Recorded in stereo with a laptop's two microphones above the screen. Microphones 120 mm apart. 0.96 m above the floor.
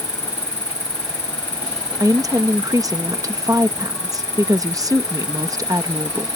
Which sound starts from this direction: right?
A woman speaking, at 2.0 s.